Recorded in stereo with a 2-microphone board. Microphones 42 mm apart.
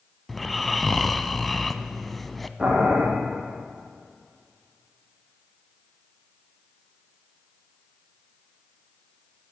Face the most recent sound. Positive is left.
turn(degrees=-25)  # may be behind; listen again after turning